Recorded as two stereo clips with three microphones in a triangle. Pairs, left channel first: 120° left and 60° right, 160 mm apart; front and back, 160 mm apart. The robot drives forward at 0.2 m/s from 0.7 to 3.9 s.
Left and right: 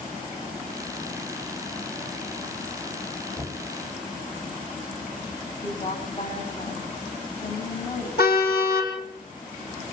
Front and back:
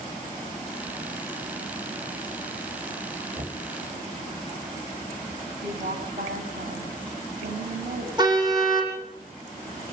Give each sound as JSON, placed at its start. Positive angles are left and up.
{"t": 3.4, "sound": "knocking", "azimuth_deg": -135, "distance_m": 3.0}
{"t": 5.6, "sound": "a woman speaking", "azimuth_deg": 165, "distance_m": 3.5}
{"t": 8.2, "sound": "a car horn", "azimuth_deg": 120, "distance_m": 7.0}